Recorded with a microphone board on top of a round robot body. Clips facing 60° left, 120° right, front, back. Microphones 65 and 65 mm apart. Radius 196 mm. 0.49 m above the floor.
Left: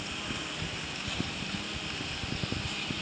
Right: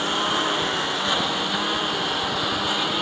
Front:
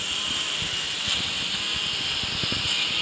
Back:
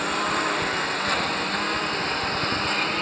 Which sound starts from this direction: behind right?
A lawn mower, at 0.0 s.